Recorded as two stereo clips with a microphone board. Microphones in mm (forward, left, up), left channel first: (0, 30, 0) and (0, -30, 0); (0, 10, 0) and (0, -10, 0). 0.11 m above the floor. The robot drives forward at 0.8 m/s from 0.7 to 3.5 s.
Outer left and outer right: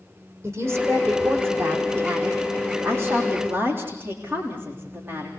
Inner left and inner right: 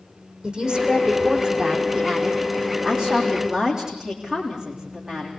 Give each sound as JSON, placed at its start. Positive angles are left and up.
{"t": 0.4, "sound": "a woman speaking", "side_deg": -50, "distance_m": 6.5}